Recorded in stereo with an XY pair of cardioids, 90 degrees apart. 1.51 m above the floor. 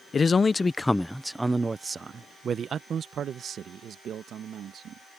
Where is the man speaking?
45° left; by 5.2 s 75° right.